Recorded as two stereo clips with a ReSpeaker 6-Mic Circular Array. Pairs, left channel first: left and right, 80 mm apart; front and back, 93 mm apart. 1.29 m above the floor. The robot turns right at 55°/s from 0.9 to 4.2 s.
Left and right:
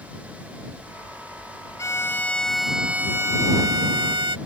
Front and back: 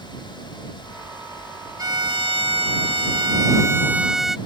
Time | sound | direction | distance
1.8 | a violin | 135° left | ?